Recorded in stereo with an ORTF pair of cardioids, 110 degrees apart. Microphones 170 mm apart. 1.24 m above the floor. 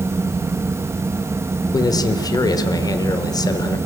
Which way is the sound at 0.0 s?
15° right.